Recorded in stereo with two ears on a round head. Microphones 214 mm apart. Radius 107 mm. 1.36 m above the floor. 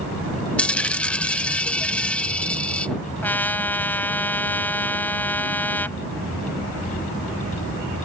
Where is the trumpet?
10° left (ahead or behind).